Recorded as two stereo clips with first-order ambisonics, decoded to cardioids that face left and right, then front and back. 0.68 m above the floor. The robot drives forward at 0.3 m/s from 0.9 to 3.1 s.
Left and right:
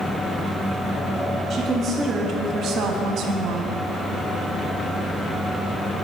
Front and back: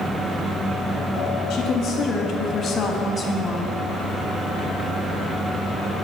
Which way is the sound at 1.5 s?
30° right.